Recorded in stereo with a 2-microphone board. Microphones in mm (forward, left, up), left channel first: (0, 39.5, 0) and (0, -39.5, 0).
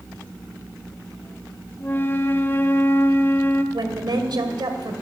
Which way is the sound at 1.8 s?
30° left (ahead or behind).